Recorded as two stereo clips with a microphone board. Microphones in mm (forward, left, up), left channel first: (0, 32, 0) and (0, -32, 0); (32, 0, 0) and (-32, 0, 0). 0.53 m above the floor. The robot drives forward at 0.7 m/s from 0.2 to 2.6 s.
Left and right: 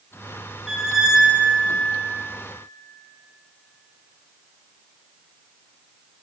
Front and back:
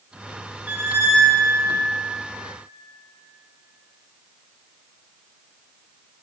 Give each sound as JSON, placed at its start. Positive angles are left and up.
{"t": 0.7, "sound": "a squeak", "azimuth_deg": -165, "distance_m": 0.7}